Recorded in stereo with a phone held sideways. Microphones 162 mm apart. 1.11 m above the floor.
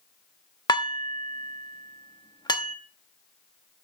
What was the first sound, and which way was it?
Dishes clattering, 25° left (ahead or behind).